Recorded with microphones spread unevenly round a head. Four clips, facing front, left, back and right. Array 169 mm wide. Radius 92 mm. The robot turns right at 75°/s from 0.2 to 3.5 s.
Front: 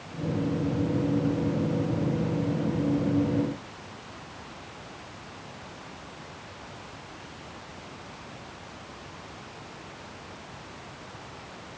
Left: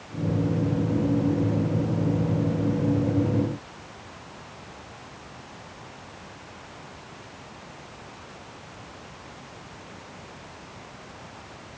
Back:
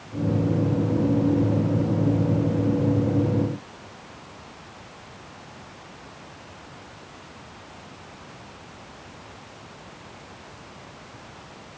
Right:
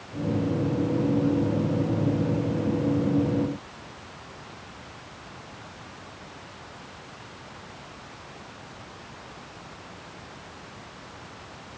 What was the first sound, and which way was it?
Only background noise.